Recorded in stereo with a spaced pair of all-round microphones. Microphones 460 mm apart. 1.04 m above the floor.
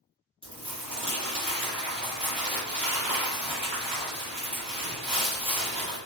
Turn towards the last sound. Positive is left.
turn(degrees=-10)  # may be behind; listen again after turning